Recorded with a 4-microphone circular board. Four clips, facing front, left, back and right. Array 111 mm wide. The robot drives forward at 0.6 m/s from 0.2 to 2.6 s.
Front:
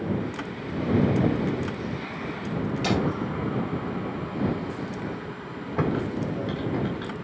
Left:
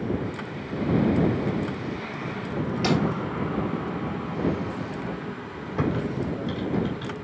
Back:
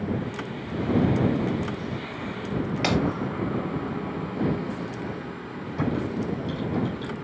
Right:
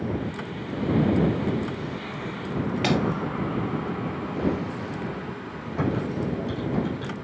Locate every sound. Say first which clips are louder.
2.8 s breaking glass: even, back 1 dB; 155° right, 1.9 m
5.8 s typing on a keyboard: even, front 1 dB; 10° left, 1.7 m